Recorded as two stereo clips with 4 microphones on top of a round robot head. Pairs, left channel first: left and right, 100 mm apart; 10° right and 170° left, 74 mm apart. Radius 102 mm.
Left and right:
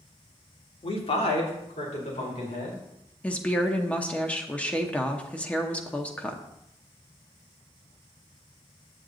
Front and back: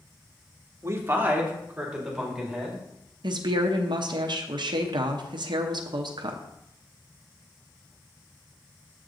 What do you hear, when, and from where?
0.8 s a man speaking: 120° left, 1.6 m; by 2.8 s 85° left, 4.5 m
3.2 s a woman speaking: 165° left, 0.9 m